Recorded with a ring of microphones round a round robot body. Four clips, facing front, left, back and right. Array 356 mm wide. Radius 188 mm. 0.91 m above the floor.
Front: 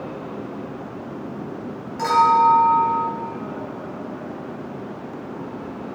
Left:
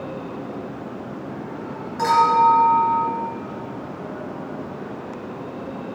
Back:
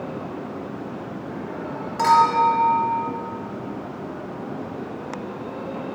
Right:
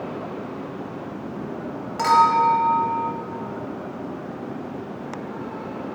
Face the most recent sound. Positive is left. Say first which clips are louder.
# left 1 dB, front 1 dB
turn(degrees=-120)